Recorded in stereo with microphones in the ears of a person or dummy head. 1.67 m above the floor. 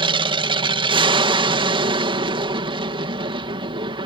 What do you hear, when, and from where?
0.0 s an aircraft: 30° right (ahead or behind)